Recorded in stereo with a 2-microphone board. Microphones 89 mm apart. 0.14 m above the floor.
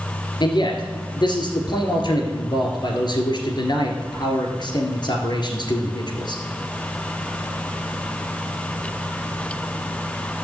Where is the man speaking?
55° left (ahead or behind), 2 m.